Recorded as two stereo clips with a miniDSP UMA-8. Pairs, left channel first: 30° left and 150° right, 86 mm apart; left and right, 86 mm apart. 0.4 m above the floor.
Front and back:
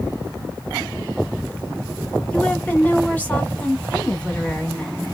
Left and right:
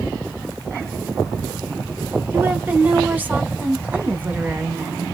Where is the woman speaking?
30° right, 0.9 m.